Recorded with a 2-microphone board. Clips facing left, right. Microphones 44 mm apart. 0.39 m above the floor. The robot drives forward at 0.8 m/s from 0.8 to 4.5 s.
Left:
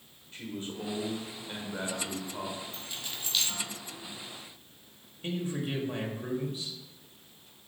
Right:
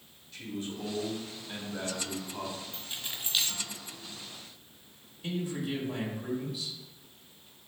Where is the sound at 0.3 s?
35° left (ahead or behind), 1.2 m; by 2.6 s 25° left (ahead or behind), 1.6 m.